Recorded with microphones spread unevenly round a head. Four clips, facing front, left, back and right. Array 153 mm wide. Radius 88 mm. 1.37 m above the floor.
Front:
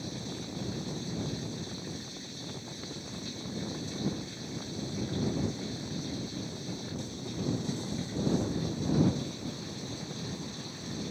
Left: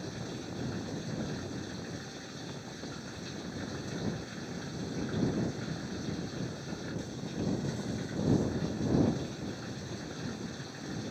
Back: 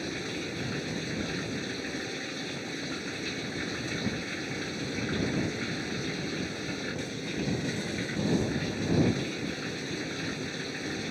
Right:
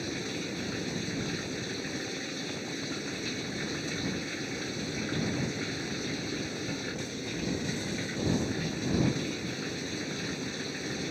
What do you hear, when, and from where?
0.0 s running water: 135° right